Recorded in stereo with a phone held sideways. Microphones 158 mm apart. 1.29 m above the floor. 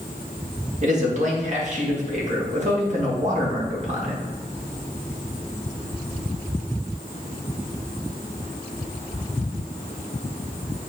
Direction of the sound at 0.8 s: 50° right (ahead or behind).